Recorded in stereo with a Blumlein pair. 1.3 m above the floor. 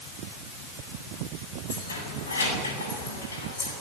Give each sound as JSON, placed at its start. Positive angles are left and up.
{"t": 1.7, "sound": "keys jangling", "azimuth_deg": 70, "distance_m": 8.0}